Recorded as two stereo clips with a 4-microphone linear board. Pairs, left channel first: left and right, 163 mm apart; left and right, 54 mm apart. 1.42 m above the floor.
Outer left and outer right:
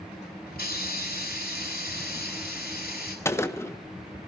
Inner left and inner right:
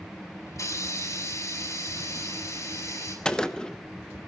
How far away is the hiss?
About 6 m.